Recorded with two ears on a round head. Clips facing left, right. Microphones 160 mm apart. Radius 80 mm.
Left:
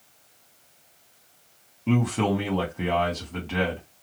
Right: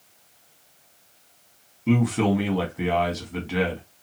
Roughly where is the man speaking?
Centre.